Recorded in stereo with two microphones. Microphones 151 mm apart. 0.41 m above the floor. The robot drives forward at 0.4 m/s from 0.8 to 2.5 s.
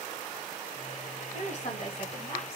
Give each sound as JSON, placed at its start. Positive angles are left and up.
{"t": 1.3, "sound": "a woman speaking", "side_deg": 45, "distance_m": 1.4}